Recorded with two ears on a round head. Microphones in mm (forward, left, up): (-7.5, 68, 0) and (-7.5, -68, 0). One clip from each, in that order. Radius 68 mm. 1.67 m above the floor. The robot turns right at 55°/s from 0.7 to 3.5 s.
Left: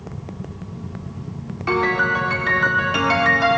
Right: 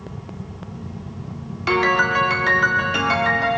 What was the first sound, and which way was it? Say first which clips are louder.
A piano: right 1 dB; 75° right.